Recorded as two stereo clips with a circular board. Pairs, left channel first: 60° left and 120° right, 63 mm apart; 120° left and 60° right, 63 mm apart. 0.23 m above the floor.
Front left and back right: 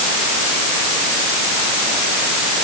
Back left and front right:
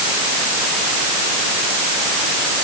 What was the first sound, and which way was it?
Only background noise.